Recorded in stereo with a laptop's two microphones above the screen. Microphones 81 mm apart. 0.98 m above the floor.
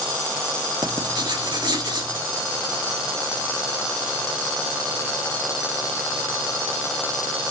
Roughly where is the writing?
Right.